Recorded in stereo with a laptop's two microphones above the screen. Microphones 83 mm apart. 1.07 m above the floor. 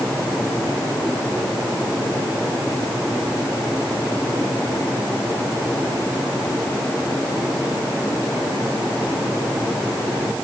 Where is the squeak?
No squeak in this recording.